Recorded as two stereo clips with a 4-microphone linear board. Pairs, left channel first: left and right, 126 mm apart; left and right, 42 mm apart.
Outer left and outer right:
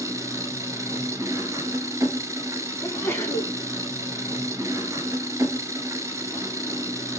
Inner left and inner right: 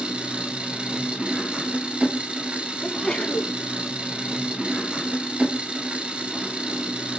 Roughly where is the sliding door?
No sliding door in this recording.